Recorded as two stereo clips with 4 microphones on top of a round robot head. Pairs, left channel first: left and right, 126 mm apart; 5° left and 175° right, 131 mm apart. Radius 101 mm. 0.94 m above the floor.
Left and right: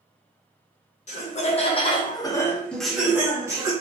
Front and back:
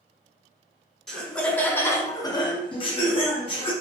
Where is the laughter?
95° left, 1.0 m; by 3.7 s 30° right, 0.9 m.